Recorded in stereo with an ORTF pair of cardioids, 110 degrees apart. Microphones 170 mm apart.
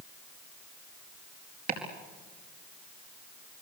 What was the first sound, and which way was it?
Chopping, 55° right.